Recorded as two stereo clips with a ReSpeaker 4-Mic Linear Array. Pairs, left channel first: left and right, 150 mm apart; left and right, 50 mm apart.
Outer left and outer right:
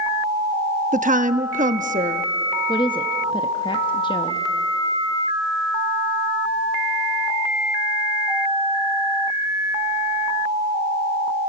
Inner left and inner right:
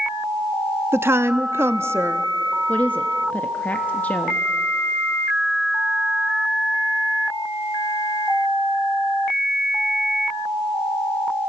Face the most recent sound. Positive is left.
turn(degrees=30)  # may be behind; listen again after turning